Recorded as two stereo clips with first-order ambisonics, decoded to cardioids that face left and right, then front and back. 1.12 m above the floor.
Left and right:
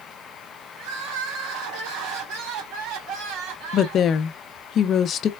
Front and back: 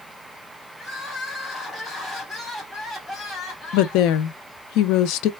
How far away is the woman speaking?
About 0.5 m.